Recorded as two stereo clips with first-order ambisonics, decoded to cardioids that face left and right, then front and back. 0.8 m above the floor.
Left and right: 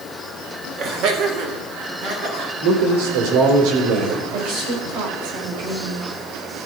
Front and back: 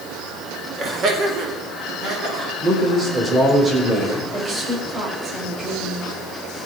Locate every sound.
0.8 s laughter: 130° right, 1.3 m
2.6 s a man speaking: 105° right, 2.5 m
4.3 s a woman speaking: 110° right, 3.5 m